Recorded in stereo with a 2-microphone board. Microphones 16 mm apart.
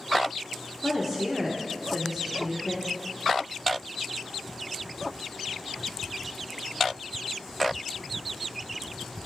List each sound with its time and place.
0.8 s a woman speaking: 5° right (ahead or behind), 1.0 m